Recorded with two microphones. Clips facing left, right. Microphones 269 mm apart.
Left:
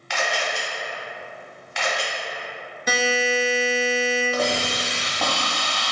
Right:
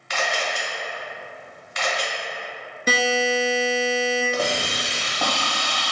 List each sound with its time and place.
0.1 s a camera shutter: 40° right (ahead or behind), 1.8 m
2.9 s a buzzer: 30° right (ahead or behind), 0.8 m
4.3 s a hiss: centre (ahead or behind), 0.8 m